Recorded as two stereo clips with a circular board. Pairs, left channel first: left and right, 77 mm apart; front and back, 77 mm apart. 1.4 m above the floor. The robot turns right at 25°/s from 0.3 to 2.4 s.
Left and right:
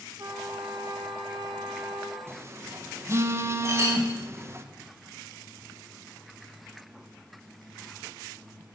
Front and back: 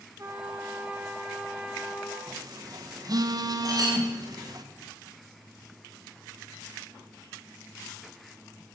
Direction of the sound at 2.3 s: 150° right.